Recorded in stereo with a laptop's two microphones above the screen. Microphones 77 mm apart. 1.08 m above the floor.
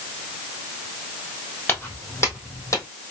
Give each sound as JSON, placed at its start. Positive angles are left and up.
{"t": 1.7, "sound": "footsteps", "side_deg": 25, "distance_m": 1.8}